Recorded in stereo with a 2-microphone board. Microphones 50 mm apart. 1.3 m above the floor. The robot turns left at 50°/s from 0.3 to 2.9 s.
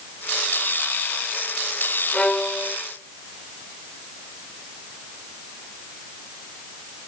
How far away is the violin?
About 1.1 m.